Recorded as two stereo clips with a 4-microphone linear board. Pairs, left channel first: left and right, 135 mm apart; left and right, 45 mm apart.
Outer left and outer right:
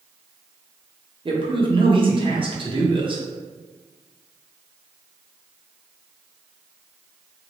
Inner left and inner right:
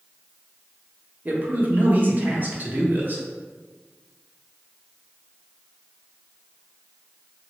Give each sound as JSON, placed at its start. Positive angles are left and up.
{"t": 1.2, "sound": "a man speaking", "side_deg": -40, "distance_m": 0.8}